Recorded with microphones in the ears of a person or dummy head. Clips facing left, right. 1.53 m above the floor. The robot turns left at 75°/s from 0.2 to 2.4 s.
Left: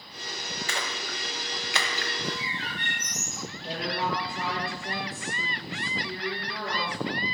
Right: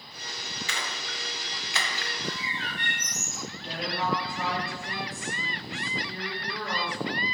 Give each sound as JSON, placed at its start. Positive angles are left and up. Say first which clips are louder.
{"t": 0.7, "sound": "a splash", "louder": "left 3 dB", "side_deg": 40, "distance_m": 0.6}
{"t": 2.2, "sound": "a bird", "louder": "left 1 dB", "side_deg": -35, "distance_m": 2.0}
{"t": 3.6, "sound": "a woman speaking", "louder": "even", "side_deg": 35, "distance_m": 1.8}